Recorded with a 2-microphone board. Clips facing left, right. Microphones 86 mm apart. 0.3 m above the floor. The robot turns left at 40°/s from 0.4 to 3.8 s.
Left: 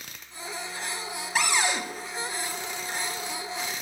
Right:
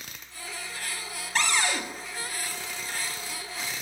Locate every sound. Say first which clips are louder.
1.4 s a cupboard door: left 1 dB; 10° left (ahead or behind), 0.8 m; by 1.8 s 25° left (ahead or behind), 0.8 m